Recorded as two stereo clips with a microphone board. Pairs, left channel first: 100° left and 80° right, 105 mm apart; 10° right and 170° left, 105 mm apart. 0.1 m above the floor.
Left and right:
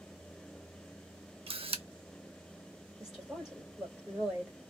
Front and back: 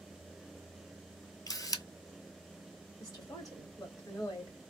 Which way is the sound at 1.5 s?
65° right.